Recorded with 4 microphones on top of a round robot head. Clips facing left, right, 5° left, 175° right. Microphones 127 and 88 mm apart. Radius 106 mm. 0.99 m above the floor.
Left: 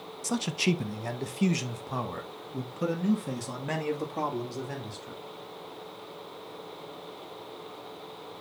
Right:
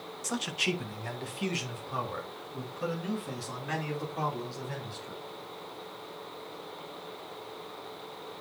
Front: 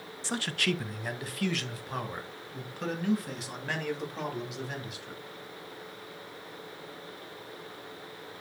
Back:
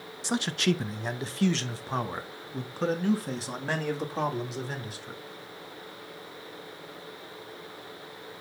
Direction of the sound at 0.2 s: 125° left.